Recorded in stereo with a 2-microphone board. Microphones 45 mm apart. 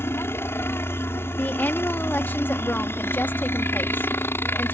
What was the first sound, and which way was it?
A helicopter, 60° left (ahead or behind).